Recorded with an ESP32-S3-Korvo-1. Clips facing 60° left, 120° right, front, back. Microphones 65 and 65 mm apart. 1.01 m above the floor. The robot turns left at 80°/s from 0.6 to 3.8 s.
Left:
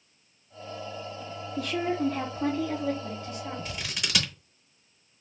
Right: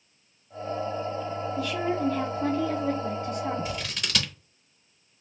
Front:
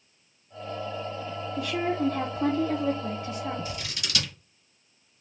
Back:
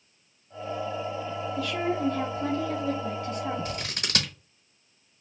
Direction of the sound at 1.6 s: 65° left.